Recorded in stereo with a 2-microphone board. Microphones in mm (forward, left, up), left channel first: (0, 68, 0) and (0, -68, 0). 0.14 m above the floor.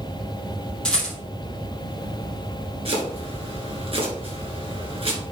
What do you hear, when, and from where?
0.8 s a rattle: 5° left (ahead or behind), 4 m
2.9 s chopping: 45° right (ahead or behind), 2 m